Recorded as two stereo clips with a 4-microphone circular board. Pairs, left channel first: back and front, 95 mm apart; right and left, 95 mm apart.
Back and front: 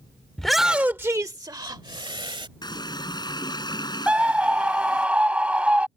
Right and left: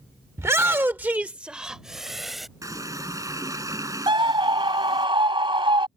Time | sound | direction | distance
0.4 | a shout | 105° left | ?
2.6 | a running tap | 140° left | ?
4.1 | a scream | 75° left | ?